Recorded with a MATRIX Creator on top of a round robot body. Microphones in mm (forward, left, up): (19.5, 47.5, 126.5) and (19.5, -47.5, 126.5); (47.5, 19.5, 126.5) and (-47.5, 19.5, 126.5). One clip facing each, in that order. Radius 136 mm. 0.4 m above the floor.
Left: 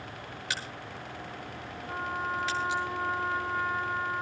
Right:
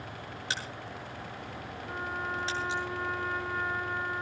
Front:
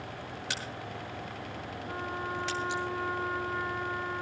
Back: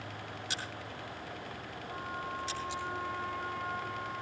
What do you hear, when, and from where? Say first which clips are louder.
0.5 s a crack: even, front 3 dB; 30° right, 7.5 m
1.9 s a trumpet: left 3 dB, front 3 dB; 20° right, 8 m